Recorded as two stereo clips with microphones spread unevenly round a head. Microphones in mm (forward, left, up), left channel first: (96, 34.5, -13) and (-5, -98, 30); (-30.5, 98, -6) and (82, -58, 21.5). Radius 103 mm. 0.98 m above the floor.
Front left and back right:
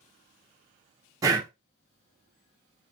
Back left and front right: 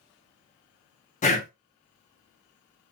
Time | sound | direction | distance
1.2 | breathing | 150° left | 0.6 m